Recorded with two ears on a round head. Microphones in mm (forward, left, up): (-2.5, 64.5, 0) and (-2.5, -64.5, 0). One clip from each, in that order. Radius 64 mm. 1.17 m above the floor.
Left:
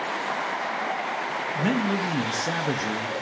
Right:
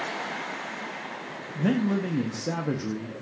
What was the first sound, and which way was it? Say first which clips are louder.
A man speaking: even; 50° left (ahead or behind).